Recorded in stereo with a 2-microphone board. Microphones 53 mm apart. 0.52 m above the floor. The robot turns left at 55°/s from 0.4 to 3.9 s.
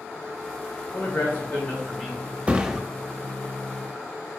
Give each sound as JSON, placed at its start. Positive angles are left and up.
{"t": 0.9, "sound": "a man speaking", "azimuth_deg": 80, "distance_m": 2.0}
{"t": 2.5, "sound": "a thud", "side_deg": -25, "distance_m": 0.5}